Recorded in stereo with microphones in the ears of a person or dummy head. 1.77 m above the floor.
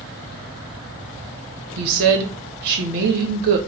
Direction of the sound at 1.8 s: 60° right (ahead or behind).